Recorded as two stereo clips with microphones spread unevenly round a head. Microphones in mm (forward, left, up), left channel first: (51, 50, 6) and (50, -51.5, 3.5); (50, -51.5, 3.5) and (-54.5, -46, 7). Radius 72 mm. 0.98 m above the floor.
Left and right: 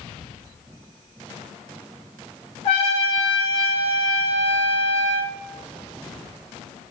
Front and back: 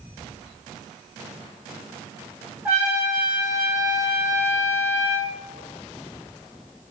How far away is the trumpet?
About 0.6 m.